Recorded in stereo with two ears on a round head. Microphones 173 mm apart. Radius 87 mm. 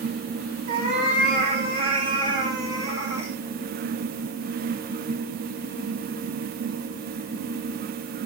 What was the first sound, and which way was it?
A cat meowing, 45° right (ahead or behind).